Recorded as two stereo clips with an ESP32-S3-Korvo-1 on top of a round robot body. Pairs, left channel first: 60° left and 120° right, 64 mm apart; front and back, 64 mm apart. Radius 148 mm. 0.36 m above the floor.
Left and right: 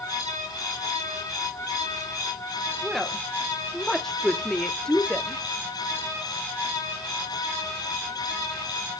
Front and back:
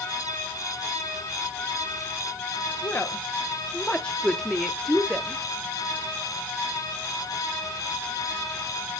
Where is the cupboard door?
I don't hear a cupboard door.